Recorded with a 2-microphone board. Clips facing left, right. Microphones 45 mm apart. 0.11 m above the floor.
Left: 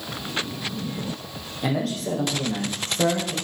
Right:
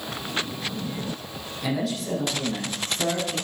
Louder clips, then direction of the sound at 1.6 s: Left 2 dB; 50° left (ahead or behind).